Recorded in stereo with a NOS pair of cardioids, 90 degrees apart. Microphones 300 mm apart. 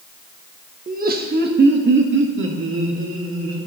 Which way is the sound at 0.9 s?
30° right.